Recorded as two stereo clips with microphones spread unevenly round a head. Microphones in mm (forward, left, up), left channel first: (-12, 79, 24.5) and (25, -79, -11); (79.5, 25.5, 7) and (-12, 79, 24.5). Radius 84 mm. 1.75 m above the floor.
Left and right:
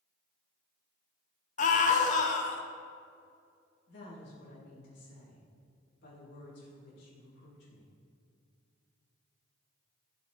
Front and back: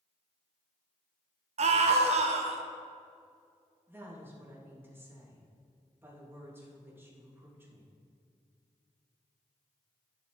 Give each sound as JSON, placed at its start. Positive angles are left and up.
{"t": 1.6, "sound": "a scream", "azimuth_deg": 145, "distance_m": 1.0}
{"t": 3.9, "sound": "a woman speaking", "azimuth_deg": 80, "distance_m": 3.5}